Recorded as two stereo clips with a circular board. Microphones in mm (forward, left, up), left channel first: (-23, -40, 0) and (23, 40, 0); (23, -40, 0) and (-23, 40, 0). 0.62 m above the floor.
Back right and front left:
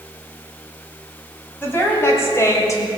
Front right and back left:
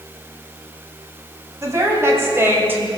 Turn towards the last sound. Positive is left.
turn(degrees=-170)